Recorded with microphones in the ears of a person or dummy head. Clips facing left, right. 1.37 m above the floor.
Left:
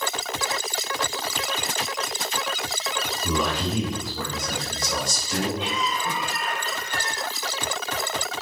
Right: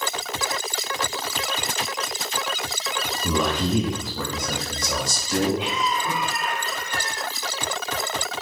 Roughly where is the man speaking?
Right.